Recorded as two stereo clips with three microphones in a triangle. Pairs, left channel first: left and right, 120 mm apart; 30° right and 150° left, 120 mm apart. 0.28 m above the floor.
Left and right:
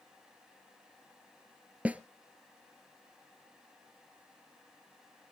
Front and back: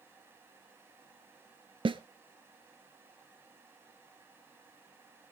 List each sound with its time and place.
1.9 s a snare drum: 165° right, 0.7 m